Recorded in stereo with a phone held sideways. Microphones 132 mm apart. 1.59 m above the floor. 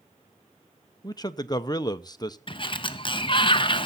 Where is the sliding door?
40° left (ahead or behind), 0.6 m.